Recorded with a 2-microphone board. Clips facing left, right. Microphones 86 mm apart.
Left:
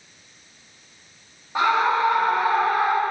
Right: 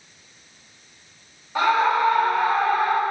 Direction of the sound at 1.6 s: 20° left (ahead or behind).